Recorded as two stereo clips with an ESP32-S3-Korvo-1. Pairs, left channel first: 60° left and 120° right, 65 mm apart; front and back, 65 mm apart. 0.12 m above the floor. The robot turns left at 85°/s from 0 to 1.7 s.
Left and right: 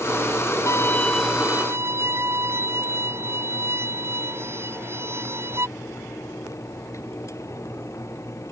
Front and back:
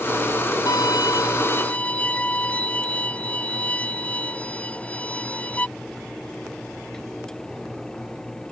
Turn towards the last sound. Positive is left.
turn(degrees=-70)